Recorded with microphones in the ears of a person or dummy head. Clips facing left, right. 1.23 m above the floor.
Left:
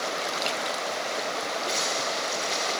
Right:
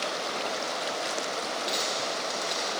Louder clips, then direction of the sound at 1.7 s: Left 2 dB; 25° right (ahead or behind).